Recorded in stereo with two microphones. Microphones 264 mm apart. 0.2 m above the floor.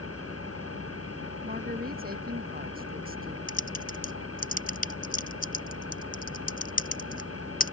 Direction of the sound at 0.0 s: 60° left (ahead or behind).